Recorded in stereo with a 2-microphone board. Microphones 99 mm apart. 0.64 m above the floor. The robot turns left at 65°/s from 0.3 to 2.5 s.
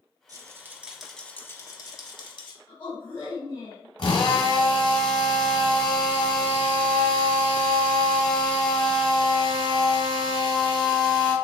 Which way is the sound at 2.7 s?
60° left (ahead or behind).